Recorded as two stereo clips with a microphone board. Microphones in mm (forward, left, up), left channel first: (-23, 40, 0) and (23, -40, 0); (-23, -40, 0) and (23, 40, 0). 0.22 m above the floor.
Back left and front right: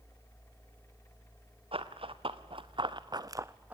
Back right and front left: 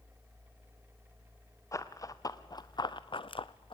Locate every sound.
1.7 s running footsteps: 65° right, 1.3 m; by 3.8 s 135° right, 0.6 m